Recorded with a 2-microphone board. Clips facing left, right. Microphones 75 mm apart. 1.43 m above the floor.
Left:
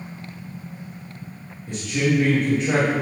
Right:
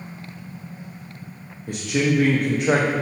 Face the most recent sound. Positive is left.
turn(degrees=-65)  # may be behind; listen again after turning